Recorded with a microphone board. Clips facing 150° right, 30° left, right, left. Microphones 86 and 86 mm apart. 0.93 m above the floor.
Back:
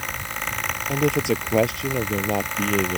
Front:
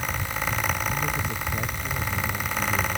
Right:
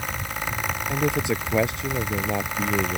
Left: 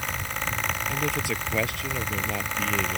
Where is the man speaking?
155° right.